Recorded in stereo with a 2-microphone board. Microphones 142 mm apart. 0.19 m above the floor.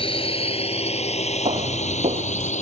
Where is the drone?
40° left (ahead or behind); by 2.6 s 55° left (ahead or behind).